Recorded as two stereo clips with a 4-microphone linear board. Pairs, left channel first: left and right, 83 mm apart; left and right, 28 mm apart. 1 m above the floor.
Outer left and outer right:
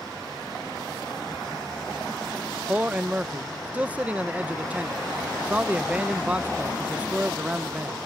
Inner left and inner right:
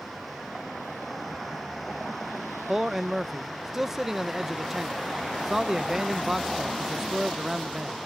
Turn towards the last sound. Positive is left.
turn(degrees=-15)  # may be behind; listen again after turning